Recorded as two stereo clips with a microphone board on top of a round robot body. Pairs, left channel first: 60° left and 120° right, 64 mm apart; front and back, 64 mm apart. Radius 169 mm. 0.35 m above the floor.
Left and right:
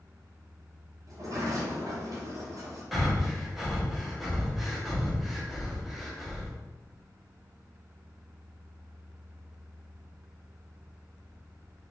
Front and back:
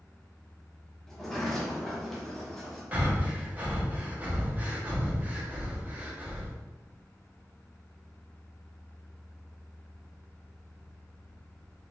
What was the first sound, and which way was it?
A sliding door, 85° right.